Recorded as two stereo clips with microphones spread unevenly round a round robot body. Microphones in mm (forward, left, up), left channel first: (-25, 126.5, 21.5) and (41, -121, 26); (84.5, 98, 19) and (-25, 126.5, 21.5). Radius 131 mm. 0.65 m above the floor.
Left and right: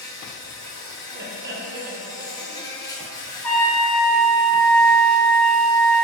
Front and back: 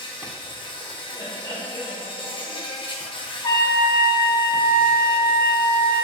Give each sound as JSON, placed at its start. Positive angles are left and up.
{"t": 0.0, "sound": "an insect", "azimuth_deg": 30, "distance_m": 0.7}
{"t": 1.1, "sound": "laughter", "azimuth_deg": -60, "distance_m": 0.6}
{"t": 3.4, "sound": "a trumpet", "azimuth_deg": 25, "distance_m": 0.7}